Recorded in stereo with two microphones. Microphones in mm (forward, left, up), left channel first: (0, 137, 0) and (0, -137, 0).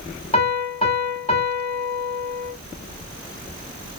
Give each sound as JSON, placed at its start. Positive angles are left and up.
{"t": 0.3, "sound": "a piano", "side_deg": 25, "distance_m": 1.4}